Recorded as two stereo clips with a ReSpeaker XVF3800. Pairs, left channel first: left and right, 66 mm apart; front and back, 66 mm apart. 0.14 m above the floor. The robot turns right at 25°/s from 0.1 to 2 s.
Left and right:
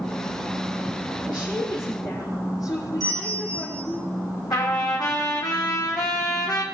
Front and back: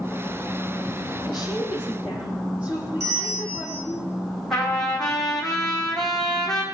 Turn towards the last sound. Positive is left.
turn(degrees=85)